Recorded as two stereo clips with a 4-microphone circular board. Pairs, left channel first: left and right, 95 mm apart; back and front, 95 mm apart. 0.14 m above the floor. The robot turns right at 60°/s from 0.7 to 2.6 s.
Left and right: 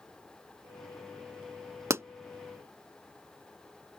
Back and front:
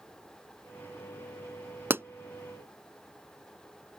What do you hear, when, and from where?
1.9 s a pop: 50° right; by 2.0 s 45° right